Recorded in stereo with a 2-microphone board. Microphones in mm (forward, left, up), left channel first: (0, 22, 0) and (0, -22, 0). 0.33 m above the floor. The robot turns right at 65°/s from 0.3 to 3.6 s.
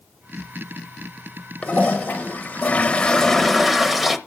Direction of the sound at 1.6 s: 55° left.